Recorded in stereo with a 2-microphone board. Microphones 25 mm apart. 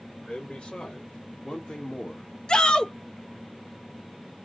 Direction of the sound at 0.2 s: 55° left (ahead or behind).